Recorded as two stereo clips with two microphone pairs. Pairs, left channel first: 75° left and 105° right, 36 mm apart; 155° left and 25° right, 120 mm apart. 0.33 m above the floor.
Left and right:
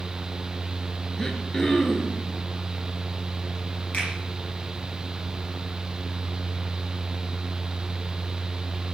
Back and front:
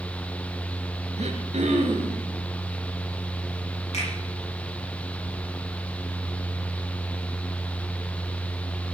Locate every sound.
1.2 s throat clearing: straight ahead, 2.5 m
3.9 s a finger snap: 130° left, 9 m